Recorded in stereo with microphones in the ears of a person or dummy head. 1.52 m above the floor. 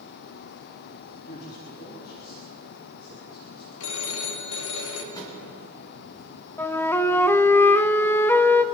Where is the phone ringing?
70° left (ahead or behind), 2.0 m.